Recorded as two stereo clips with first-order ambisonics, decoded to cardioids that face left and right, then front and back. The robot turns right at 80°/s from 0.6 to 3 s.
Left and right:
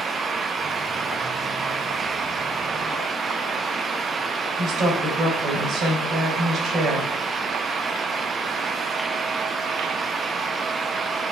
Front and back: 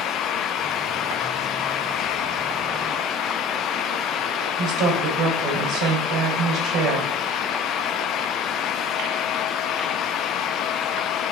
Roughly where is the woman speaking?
Behind right.